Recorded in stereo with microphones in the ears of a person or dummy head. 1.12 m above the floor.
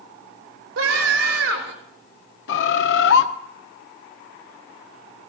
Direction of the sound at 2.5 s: 75° left (ahead or behind).